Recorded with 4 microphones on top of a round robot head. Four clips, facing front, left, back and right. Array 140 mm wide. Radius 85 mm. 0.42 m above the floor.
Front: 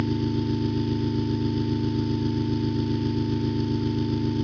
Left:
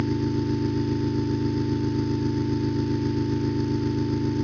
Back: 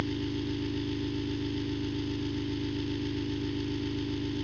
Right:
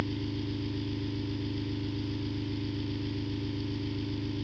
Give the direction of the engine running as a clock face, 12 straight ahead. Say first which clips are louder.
Left 9 dB, front 7 dB; 10 o'clock.